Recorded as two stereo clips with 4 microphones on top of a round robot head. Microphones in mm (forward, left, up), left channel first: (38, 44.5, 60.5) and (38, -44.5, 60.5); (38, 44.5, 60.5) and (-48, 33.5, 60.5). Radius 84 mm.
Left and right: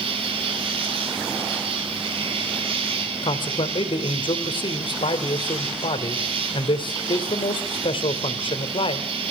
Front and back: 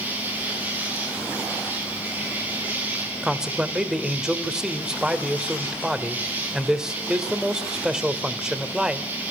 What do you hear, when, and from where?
0.0 s an insect: 105° right, 5 m
3.2 s a man speaking: 105° left, 2.5 m